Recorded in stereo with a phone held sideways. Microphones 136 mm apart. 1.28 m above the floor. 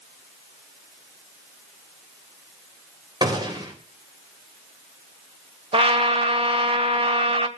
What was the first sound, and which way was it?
A gunshot, 30° right (ahead or behind).